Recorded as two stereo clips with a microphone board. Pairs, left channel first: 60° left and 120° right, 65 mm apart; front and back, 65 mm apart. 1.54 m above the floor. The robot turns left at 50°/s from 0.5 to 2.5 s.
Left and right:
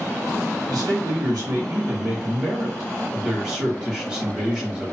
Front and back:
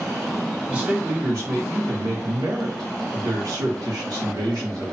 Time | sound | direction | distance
0.7 | a man speaking | 105° right | 1.5 m